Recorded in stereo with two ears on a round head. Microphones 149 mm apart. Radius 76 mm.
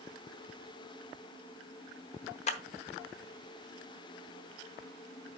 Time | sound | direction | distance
2.5 | a clap | 40° left (ahead or behind) | 0.9 m